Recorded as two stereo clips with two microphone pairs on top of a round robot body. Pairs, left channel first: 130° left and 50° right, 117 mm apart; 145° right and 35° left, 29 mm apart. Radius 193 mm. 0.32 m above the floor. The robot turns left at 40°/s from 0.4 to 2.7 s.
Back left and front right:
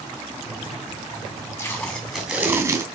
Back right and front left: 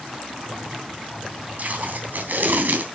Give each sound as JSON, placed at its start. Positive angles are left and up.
{"t": 1.6, "sound": "tape being pulled", "azimuth_deg": 65, "distance_m": 3.0}